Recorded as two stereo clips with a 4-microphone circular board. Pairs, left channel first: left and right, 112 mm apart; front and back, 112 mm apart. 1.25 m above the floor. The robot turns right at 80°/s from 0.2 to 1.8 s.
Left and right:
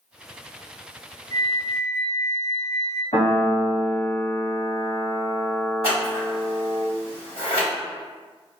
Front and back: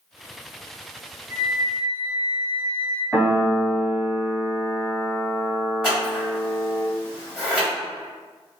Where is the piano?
80° left, 1.3 m.